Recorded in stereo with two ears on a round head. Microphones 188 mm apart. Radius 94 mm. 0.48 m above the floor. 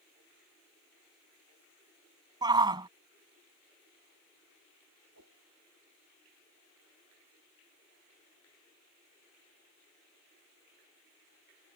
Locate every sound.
2.4 s a shout: 20° right (ahead or behind)
5.1 s a whoosh: 85° right